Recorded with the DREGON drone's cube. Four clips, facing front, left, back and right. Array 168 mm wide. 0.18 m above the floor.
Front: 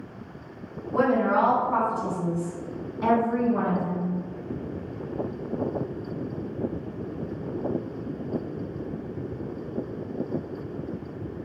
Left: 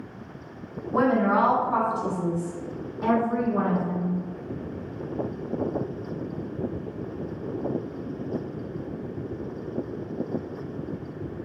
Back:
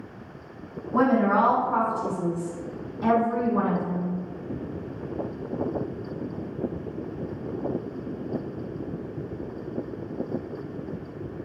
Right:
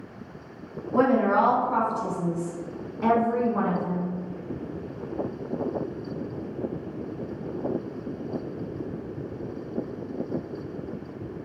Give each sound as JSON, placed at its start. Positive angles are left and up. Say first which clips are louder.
{"t": 0.9, "sound": "a woman speaking", "louder": "right 1 dB, back 1 dB", "azimuth_deg": 120, "distance_m": 1.3}